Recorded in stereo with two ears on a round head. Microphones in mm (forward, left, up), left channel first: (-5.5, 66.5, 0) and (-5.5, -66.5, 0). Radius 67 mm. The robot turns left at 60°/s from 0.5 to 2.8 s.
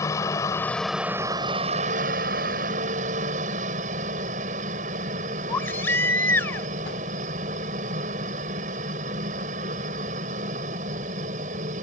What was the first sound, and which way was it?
A helicopter, 20° left.